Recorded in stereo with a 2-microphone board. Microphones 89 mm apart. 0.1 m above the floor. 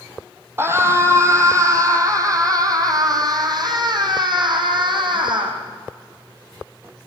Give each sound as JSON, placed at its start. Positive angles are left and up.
{"t": 0.6, "sound": "a scream", "side_deg": -25, "distance_m": 4.5}